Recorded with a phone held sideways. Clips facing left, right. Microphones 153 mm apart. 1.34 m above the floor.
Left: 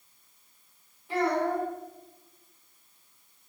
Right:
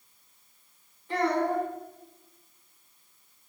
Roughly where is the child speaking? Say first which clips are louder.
Even; centre.